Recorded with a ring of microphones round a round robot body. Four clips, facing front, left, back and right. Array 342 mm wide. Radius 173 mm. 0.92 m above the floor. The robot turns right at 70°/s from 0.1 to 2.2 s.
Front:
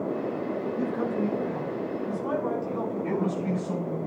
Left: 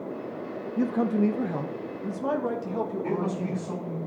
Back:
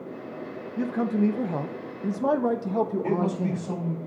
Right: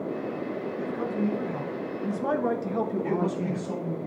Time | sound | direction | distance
0.8 | a man speaking | 100° left | 1.2 m
3.0 | a man speaking | 150° right | 3.5 m